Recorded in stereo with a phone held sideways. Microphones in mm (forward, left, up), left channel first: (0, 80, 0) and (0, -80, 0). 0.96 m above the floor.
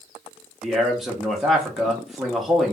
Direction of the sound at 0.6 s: Centre (ahead or behind).